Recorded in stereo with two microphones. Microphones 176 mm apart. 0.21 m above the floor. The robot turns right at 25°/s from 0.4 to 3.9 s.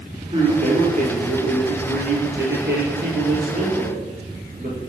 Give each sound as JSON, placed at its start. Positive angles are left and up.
{"t": 0.3, "sound": "a man speaking", "azimuth_deg": -145, "distance_m": 4.0}